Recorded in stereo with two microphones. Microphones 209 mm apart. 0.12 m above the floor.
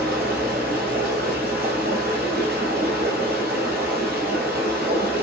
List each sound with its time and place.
0.0 s running water: 50° right (ahead or behind), 1.2 m